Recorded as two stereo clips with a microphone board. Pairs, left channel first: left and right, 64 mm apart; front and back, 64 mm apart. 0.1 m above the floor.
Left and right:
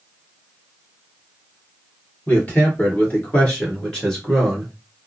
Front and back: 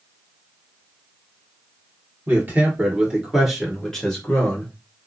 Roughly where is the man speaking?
Behind left.